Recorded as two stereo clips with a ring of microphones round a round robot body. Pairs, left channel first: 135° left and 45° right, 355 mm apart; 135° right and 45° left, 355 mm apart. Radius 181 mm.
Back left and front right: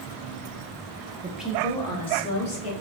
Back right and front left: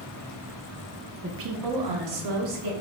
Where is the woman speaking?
15° left, 0.6 m; by 2.7 s 65° left, 2 m.